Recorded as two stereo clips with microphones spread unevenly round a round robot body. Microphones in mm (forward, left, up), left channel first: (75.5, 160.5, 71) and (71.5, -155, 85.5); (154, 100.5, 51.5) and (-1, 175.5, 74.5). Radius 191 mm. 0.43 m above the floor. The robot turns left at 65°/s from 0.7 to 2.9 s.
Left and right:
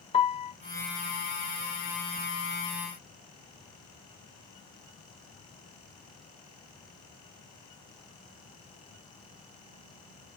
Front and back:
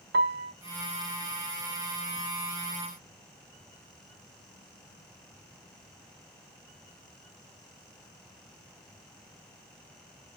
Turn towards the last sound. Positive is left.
turn(degrees=15)